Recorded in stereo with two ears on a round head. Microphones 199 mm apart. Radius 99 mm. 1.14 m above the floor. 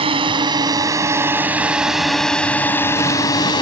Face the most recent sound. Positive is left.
turn(degrees=20)  # may be behind; listen again after turning